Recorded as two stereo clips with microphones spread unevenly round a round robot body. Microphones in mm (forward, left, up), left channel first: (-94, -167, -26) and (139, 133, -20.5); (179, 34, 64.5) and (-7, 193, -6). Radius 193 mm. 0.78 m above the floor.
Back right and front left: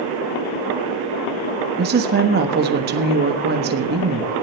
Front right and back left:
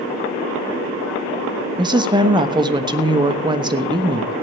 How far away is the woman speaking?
About 1.2 m.